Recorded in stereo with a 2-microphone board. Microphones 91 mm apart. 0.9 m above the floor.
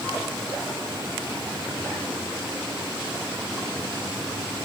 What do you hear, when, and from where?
Only background noise.